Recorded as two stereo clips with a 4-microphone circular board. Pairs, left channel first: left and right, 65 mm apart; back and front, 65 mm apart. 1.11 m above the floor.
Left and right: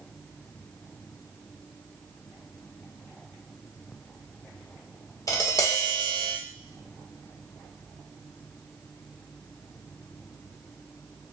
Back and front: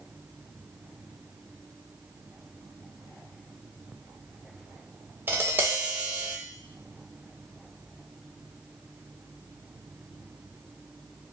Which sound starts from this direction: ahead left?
Tapping, at 5.3 s.